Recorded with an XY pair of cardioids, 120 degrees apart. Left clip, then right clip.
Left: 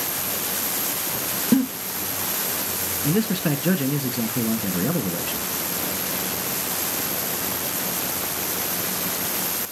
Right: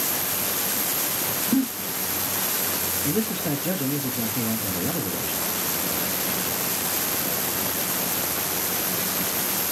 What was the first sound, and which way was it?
A giggle, 70° left.